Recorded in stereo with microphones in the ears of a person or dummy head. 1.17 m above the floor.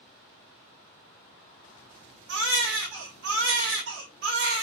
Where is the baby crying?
60° right (ahead or behind), 1.4 m.